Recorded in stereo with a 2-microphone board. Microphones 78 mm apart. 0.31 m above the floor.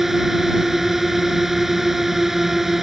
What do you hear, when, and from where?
0.0 s a drone: 5° right (ahead or behind)